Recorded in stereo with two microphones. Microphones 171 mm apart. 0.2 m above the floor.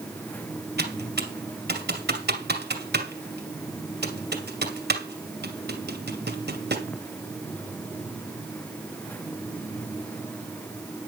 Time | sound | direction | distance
0.8 | typing on a keyboard | 75° right (ahead or behind) | 2.5 m